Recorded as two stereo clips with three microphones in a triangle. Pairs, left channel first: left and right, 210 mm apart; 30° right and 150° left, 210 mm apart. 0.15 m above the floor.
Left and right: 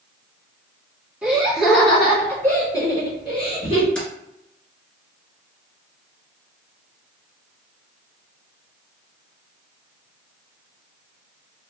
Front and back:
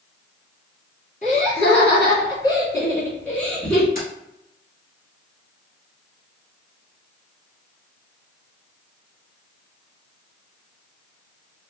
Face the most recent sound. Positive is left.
turn(degrees=5)